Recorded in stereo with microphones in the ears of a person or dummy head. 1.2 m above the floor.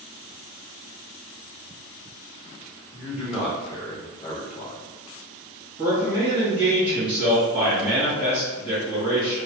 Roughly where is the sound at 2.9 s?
Centre.